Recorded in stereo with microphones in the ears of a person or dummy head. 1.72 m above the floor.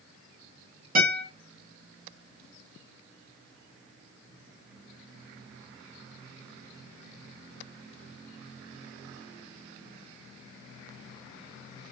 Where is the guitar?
50° right (ahead or behind), 1.8 m.